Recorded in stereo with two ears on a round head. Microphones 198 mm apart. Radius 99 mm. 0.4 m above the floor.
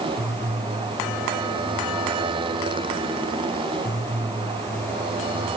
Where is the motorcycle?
20° right (ahead or behind).